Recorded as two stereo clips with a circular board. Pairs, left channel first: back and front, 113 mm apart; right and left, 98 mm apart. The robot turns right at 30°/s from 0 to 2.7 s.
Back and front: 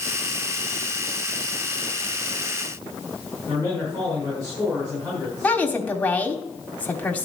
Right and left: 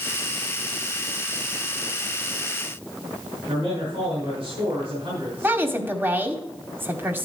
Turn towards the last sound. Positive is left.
turn(degrees=125)